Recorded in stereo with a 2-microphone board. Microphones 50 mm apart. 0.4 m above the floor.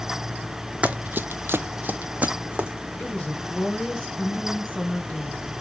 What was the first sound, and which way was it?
Running footsteps, 25° right (ahead or behind).